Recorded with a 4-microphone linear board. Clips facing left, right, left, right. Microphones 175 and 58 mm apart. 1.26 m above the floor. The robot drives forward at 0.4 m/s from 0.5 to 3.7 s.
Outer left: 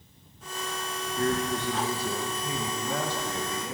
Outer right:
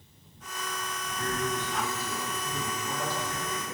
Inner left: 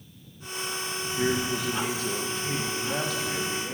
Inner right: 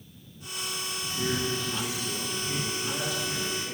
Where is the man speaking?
65° left (ahead or behind), 1.4 m.